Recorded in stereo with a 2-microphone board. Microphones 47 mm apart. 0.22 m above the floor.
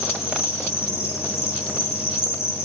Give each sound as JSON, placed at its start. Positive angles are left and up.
{"t": 0.0, "sound": "an insect", "side_deg": 65, "distance_m": 9.0}